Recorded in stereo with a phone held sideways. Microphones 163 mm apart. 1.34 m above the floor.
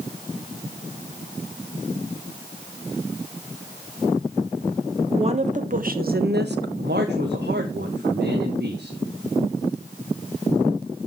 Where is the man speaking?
70° right (ahead or behind), 1.4 m.